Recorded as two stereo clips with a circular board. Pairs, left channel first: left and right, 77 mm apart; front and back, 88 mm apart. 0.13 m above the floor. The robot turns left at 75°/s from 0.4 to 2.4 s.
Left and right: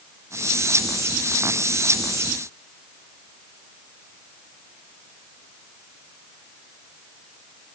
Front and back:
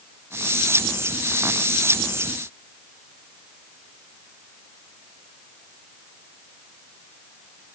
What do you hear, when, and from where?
Only background noise.